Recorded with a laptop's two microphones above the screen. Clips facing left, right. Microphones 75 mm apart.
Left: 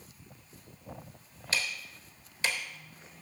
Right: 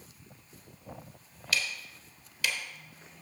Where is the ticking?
30° left (ahead or behind), 1.1 m.